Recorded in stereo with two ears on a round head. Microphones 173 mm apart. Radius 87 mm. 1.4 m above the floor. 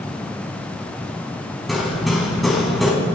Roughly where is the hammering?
Centre.